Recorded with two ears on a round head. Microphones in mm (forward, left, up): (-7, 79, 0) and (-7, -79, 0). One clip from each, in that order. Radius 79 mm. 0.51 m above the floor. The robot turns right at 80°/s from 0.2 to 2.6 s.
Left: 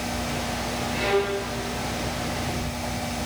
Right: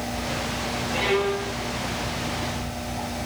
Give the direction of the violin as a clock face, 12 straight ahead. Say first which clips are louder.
Right 1 dB; 1 o'clock.